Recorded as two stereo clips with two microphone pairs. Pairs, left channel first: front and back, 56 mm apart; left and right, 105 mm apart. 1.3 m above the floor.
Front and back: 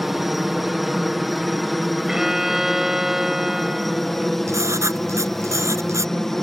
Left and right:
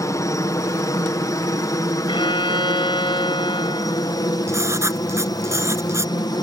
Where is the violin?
100° left.